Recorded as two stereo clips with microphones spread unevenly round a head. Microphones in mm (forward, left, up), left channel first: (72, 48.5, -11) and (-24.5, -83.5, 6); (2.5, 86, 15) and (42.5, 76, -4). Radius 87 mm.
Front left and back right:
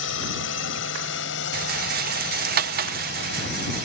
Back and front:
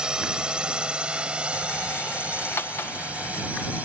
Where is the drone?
60° left; by 3.9 s 40° left.